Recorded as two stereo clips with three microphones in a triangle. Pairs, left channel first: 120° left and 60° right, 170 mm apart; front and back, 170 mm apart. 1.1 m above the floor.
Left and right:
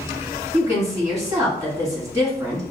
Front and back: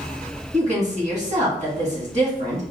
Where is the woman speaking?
130° right, 1.8 m.